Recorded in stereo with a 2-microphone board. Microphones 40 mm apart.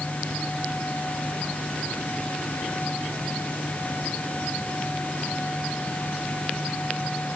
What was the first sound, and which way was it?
Only background noise.